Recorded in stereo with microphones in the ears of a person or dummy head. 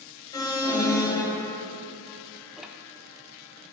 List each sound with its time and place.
0.3 s an alarm: 20° left (ahead or behind), 2 m
2.6 s ticking: 5° right (ahead or behind), 0.7 m